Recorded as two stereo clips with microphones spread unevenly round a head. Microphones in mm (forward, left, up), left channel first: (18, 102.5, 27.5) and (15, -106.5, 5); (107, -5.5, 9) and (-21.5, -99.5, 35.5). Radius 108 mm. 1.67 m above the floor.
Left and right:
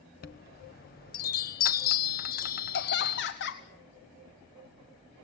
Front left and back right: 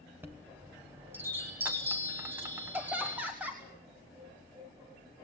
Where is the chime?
135° left, 1.0 m.